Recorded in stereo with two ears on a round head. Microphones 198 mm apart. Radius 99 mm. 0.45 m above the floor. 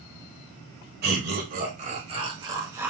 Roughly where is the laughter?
Right.